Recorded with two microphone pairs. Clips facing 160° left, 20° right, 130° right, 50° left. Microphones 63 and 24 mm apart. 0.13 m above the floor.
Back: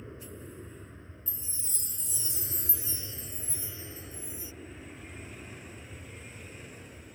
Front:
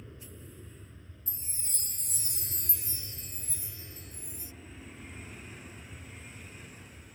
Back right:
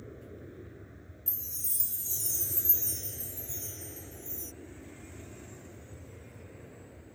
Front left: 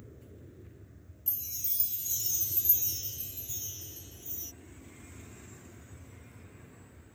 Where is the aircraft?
160° right; by 7.2 s 155° right.